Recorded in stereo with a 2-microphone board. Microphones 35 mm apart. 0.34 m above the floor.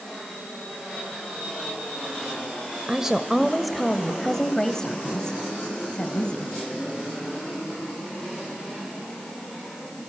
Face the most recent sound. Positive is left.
turn(degrees=30)  # may be behind; listen again after turning